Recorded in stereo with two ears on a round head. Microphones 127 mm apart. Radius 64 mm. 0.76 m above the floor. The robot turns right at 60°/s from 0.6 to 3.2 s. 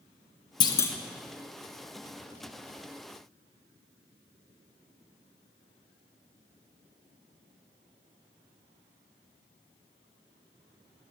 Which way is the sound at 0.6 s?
30° left (ahead or behind).